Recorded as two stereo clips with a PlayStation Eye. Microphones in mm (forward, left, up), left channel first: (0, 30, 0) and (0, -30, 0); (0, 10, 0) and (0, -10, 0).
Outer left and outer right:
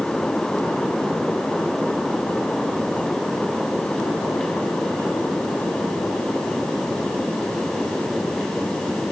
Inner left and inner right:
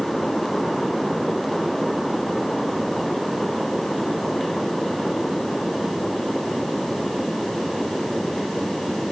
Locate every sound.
Only background noise.